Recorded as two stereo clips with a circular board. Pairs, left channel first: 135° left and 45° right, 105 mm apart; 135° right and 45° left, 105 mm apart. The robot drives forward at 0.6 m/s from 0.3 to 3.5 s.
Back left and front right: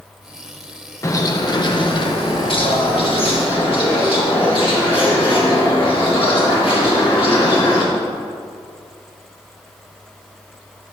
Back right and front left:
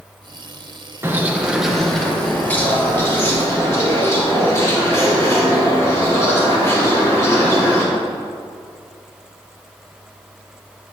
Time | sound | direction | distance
1.0 | a bird | 95° left | 0.8 m